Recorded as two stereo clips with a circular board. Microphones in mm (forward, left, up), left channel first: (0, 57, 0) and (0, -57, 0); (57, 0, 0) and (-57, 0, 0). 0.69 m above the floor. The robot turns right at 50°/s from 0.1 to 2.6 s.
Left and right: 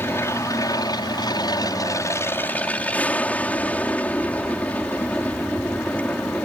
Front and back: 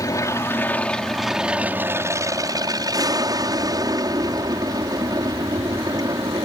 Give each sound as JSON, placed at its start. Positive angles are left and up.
{"t": 0.0, "sound": "an aircraft", "azimuth_deg": 35}